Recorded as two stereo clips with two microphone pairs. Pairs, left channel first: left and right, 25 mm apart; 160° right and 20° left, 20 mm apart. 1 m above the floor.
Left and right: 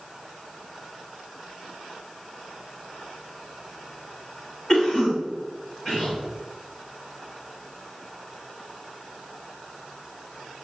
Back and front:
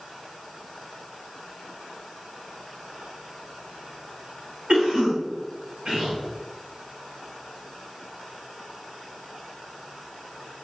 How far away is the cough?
About 2 m.